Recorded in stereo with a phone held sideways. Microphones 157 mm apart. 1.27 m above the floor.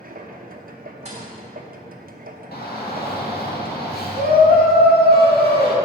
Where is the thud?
45° right (ahead or behind), 2.5 m.